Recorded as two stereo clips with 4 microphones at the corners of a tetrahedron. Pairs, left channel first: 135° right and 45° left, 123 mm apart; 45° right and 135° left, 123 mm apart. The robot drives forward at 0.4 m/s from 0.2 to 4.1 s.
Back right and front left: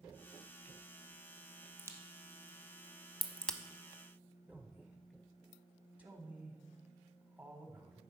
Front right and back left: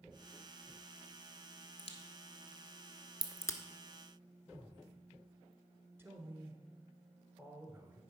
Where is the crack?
15° right, 1.0 m; by 3.6 s 70° right, 0.7 m.